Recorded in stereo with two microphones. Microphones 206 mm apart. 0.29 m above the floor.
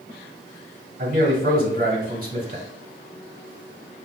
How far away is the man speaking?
About 1.5 m.